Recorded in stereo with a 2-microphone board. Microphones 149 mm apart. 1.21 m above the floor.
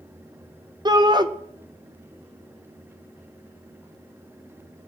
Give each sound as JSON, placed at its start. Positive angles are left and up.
{"t": 0.8, "sound": "a shout", "side_deg": -30, "distance_m": 0.8}